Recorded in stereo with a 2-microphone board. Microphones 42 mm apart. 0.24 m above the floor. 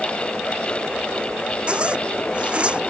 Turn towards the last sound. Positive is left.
turn(degrees=-25)  # may be behind; listen again after turning